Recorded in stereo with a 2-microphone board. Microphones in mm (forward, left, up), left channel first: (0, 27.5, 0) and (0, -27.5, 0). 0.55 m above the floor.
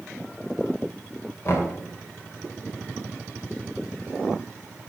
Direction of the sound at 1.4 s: 50° left (ahead or behind).